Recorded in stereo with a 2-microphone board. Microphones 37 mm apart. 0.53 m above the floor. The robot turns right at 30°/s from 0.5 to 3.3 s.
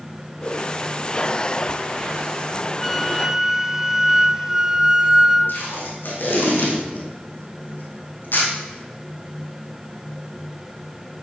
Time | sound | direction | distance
0.4 | a whoosh | 25° left (ahead or behind) | 6 m
2.8 | a flute | centre (ahead or behind) | 0.7 m
5.5 | tape being pulled | 70° left (ahead or behind) | 4 m